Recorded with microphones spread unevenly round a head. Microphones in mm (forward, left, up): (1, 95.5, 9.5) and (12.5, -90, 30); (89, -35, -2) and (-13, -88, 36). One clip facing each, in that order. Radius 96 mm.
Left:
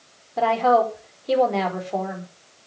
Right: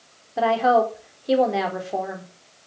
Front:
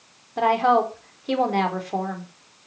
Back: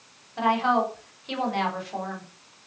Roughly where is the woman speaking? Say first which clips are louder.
Even, front 4 dB; ahead.